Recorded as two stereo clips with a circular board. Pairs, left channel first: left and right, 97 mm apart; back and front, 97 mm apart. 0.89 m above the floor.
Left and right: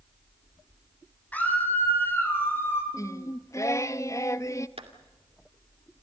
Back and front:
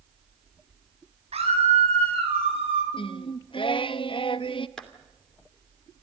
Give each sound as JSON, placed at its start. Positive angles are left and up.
{"t": 1.3, "sound": "a scream", "azimuth_deg": 15, "distance_m": 5.5}
{"t": 2.9, "sound": "singing", "azimuth_deg": 150, "distance_m": 0.7}
{"t": 4.8, "sound": "a clap", "azimuth_deg": -95, "distance_m": 2.5}